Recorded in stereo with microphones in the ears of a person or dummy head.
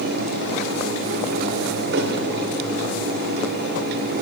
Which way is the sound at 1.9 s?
60° right (ahead or behind).